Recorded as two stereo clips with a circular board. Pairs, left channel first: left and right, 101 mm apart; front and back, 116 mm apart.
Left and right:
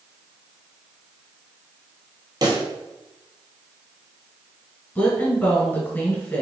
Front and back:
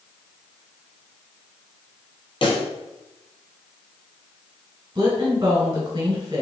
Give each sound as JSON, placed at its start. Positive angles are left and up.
{"t": 2.4, "sound": "a pop", "azimuth_deg": -40, "distance_m": 1.0}
{"t": 5.0, "sound": "a woman speaking", "azimuth_deg": 155, "distance_m": 1.5}